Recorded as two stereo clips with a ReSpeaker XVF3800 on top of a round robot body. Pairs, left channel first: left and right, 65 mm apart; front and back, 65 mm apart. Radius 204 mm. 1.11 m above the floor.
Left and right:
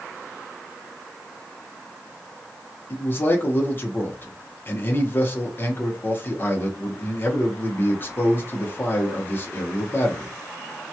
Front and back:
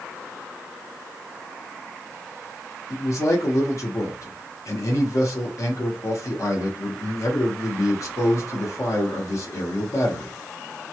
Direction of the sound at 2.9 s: 35° left.